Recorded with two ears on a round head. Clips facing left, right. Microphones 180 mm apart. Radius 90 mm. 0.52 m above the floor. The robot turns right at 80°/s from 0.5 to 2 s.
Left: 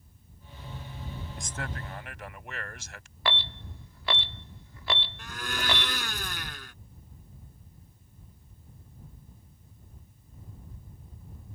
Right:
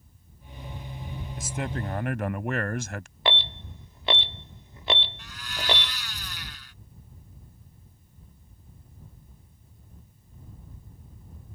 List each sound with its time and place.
1.4 s a man speaking: straight behind; by 3.1 s 130° right
3.2 s an alarm: 20° right (ahead or behind)
5.2 s a blender: 45° left (ahead or behind)